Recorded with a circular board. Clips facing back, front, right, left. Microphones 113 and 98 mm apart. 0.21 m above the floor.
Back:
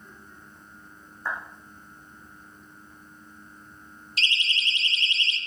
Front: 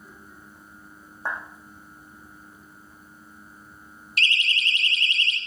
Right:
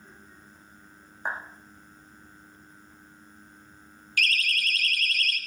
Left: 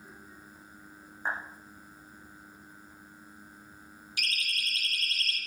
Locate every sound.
1.2 s a clap: 15° right, 9.5 m
4.2 s a siren: 20° left, 3.5 m; by 5.4 s 30° left, 4 m